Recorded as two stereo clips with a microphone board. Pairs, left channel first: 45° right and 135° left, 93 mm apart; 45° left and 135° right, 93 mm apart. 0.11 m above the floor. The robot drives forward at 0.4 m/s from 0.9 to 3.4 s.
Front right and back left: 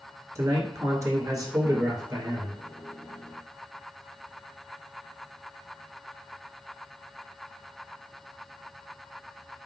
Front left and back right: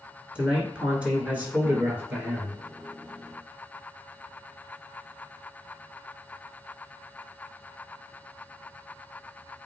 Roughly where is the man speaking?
Behind left.